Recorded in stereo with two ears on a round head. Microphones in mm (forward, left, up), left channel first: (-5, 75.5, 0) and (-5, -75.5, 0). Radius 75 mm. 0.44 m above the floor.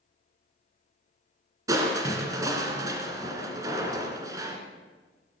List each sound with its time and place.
1.7 s crushing: 20° right (ahead or behind), 1.9 m